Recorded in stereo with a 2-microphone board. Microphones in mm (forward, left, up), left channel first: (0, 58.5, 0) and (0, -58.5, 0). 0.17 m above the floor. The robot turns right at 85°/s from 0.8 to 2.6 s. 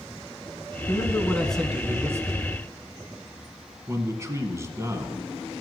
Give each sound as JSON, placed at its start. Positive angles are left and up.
{"t": 0.9, "sound": "a man speaking", "azimuth_deg": 120, "distance_m": 1.3}
{"t": 3.9, "sound": "a man speaking", "side_deg": -25, "distance_m": 1.3}